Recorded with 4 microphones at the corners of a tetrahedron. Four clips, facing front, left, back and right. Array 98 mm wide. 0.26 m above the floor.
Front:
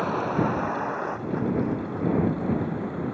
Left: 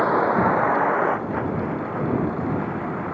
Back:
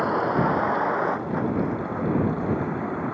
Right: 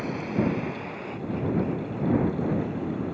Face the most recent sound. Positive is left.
turn(degrees=125)